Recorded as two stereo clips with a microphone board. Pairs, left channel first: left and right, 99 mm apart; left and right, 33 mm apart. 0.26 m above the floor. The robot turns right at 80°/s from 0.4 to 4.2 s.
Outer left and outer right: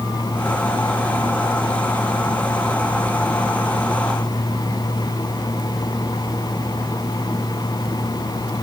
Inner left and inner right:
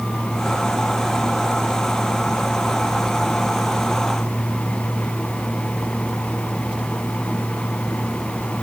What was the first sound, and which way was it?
Only background noise.